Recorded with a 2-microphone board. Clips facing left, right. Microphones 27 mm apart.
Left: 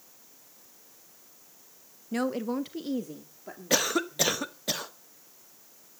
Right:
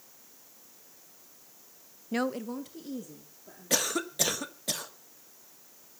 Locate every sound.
2.1 s a woman speaking: 20° right (ahead or behind), 0.5 m; by 4.5 s 60° left (ahead or behind), 3.5 m
3.7 s a cough: 15° left (ahead or behind), 1.2 m